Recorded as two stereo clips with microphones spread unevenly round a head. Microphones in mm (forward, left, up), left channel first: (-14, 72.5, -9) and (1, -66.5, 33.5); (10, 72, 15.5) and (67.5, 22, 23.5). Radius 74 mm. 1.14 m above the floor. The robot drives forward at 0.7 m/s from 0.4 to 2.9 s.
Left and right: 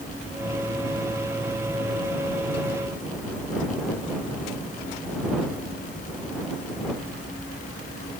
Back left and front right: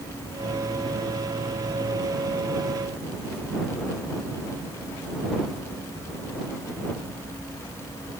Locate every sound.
Only background noise.